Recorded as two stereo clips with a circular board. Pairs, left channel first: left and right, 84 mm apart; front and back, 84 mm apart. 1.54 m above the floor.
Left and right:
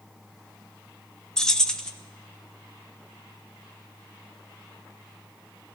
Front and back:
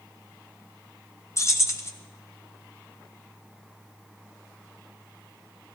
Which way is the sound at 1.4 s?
15° left.